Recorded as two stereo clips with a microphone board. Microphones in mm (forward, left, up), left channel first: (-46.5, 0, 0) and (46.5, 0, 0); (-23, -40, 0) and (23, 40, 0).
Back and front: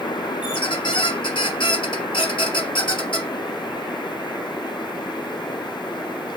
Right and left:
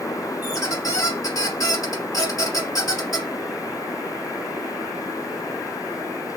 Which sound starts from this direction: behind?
A squeak, at 0.4 s.